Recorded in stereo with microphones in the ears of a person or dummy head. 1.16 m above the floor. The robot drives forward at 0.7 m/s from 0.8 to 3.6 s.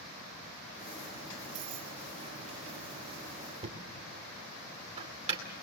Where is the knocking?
30° right (ahead or behind), 2.5 m.